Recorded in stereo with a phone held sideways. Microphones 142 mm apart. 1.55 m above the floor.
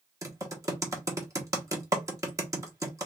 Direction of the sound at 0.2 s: 20° right (ahead or behind).